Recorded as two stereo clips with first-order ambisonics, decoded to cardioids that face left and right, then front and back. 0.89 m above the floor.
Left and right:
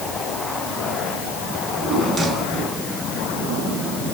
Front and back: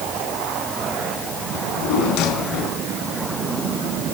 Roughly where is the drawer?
Ahead.